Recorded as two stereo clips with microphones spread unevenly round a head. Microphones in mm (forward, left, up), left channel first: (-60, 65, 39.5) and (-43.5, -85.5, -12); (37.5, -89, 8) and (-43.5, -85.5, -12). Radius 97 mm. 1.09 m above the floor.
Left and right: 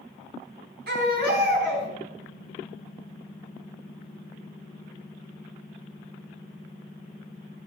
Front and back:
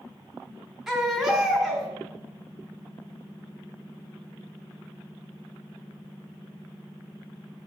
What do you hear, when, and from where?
0.9 s a baby crying: 100° right, 3.5 m